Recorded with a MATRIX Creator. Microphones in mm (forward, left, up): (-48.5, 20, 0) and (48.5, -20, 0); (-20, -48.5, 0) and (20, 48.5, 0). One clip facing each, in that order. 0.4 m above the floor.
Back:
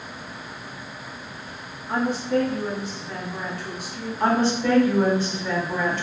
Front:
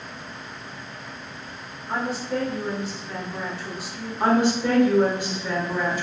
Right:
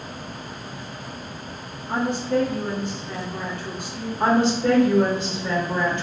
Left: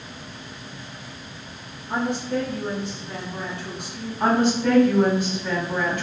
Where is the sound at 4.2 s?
85° right, 0.9 m.